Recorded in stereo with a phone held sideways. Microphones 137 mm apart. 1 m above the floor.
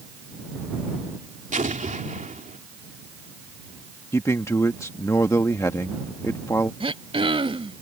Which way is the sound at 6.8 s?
40° right (ahead or behind).